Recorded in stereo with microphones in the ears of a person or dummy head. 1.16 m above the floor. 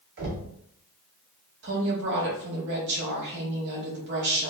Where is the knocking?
60° right (ahead or behind), 2 m.